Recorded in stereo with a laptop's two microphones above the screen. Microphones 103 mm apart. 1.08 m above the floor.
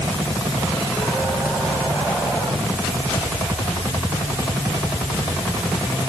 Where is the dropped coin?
No dropped coin in this recording.